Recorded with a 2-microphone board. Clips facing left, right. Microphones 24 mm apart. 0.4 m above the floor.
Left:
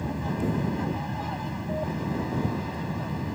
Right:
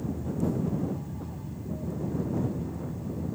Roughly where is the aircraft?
Left.